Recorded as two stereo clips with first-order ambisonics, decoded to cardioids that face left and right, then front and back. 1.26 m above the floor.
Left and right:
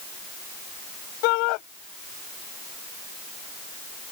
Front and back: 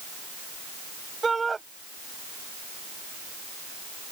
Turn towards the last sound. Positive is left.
turn(degrees=100)